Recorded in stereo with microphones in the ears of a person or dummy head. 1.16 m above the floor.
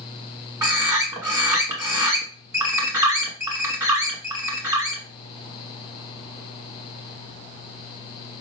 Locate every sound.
0.6 s a bird: 20° right (ahead or behind), 1.1 m